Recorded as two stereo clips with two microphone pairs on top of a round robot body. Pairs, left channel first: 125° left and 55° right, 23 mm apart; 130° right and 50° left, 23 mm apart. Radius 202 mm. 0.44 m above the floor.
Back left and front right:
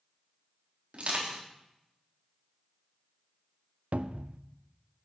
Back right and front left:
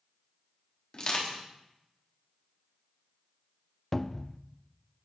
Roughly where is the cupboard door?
Ahead right.